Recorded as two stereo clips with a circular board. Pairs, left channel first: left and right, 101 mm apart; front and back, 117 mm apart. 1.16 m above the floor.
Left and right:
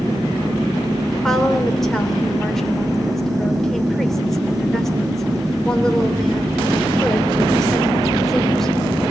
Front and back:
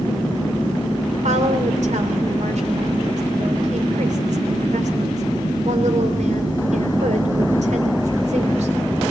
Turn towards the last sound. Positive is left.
turn(degrees=175)